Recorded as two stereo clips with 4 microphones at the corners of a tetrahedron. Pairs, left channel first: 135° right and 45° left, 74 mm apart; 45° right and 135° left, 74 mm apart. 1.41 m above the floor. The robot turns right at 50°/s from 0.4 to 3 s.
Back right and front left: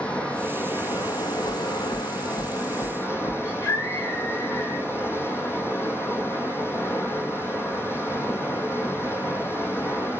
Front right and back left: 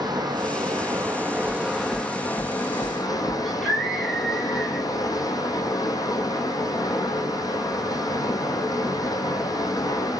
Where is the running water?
150° left, 5 m; by 10.2 s 80° right, 5 m.